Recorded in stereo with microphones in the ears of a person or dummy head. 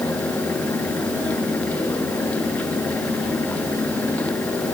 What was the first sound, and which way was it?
Only background noise.